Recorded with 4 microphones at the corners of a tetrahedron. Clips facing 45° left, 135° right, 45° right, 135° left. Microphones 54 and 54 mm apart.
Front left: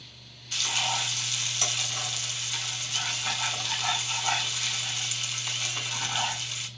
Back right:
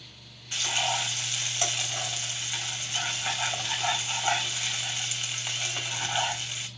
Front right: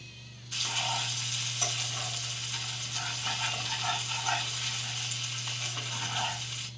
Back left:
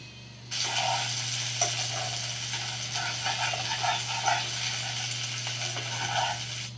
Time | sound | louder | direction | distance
0.5 | frying | back right 1 dB, back left 4 dB | 160° left | 3.5 m